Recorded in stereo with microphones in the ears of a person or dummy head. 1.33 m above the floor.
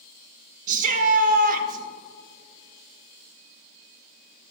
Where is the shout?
50° right (ahead or behind), 1.3 m.